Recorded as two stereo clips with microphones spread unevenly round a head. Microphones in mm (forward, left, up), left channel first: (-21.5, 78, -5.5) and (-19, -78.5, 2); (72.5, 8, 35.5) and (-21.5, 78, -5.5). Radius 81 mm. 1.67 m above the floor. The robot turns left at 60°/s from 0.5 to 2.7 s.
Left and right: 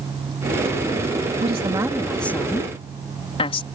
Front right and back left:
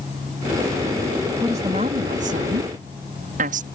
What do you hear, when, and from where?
1.4 s a woman speaking: 135° right; by 3.7 s 145° left